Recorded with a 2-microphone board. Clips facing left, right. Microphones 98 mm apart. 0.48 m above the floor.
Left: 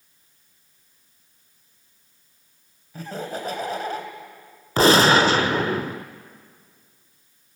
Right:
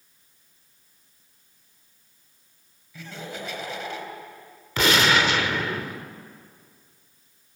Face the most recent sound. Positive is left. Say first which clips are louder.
# left 6 dB
turn(degrees=35)  # may be behind; listen again after turning